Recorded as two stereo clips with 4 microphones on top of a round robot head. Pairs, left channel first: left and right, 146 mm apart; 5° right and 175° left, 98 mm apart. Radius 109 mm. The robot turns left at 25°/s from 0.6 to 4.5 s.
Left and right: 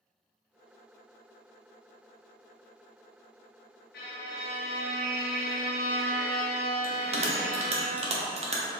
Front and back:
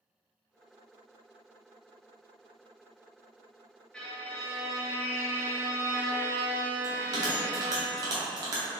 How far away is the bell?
About 0.8 m.